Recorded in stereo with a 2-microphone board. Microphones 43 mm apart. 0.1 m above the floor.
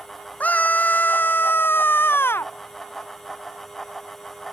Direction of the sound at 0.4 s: 35° left (ahead or behind).